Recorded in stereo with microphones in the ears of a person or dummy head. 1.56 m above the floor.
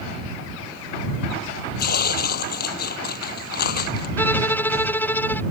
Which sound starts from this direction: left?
Tearing paper, at 1.8 s.